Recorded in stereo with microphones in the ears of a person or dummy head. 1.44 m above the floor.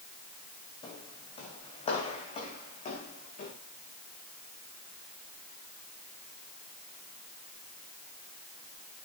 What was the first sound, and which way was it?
Footsteps, 20° left (ahead or behind).